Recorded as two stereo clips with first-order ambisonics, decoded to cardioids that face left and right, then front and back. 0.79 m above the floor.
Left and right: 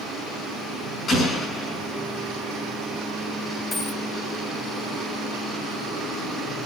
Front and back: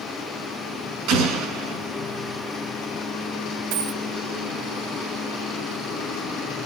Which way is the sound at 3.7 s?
165° left.